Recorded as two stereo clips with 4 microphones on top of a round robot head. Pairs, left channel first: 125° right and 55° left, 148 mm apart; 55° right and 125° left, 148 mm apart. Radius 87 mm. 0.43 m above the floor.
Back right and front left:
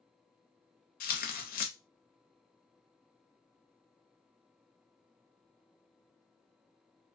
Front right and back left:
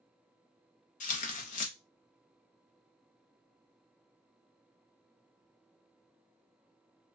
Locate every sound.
1.0 s tearing paper: 95° right, 0.5 m